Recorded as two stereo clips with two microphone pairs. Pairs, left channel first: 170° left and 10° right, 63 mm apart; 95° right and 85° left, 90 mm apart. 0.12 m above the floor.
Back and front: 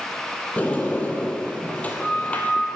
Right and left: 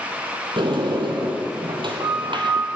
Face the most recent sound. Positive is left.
turn(degrees=105)